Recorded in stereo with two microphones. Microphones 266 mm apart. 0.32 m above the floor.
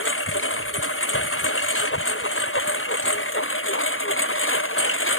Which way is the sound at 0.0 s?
50° left (ahead or behind).